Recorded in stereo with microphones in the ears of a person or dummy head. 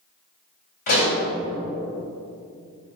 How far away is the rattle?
No rattle in this recording.